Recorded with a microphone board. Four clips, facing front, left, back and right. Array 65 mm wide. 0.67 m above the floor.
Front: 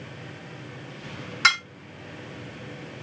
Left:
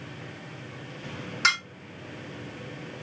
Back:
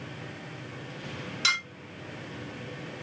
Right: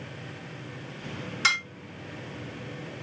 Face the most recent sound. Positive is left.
turn(degrees=20)